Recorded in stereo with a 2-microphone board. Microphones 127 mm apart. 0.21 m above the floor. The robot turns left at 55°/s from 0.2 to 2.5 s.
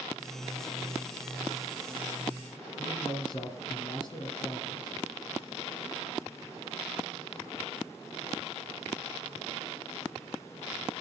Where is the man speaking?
40° left (ahead or behind), 2.5 m.